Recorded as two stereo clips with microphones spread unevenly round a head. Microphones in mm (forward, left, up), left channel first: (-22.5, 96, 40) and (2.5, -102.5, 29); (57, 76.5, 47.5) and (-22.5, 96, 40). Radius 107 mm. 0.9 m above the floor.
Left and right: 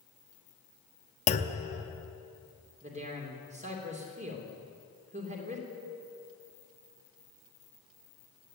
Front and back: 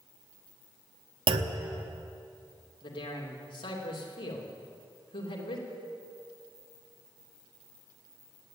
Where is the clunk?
155° left, 0.9 m.